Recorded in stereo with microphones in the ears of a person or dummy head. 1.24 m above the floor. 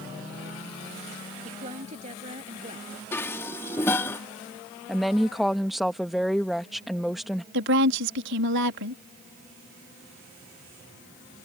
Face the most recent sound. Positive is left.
turn(degrees=-65)  # may be behind; listen again after turning